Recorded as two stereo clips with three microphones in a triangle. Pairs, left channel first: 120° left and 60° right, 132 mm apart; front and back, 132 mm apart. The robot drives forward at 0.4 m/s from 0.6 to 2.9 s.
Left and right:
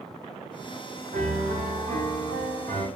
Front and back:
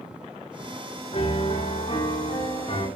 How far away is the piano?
About 7 m.